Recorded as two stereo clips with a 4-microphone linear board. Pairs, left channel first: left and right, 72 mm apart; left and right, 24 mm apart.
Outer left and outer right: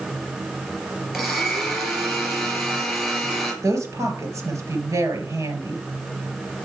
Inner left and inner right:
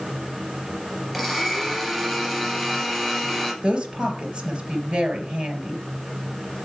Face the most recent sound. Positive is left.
turn(degrees=-50)  # may be behind; listen again after turning